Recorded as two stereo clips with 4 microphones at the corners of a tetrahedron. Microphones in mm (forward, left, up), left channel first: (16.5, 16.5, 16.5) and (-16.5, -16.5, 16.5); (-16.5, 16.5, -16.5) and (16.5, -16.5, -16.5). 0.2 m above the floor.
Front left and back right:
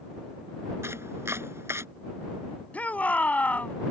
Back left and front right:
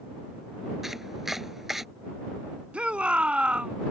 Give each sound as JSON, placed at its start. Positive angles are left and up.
{"t": 0.8, "sound": "chopping", "azimuth_deg": -130}
{"t": 2.7, "sound": "a shout", "azimuth_deg": 10}